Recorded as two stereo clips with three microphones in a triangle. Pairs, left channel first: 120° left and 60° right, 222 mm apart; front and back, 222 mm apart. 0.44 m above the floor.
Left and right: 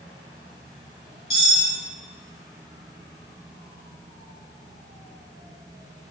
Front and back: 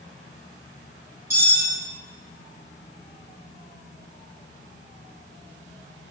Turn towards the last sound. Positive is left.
turn(degrees=105)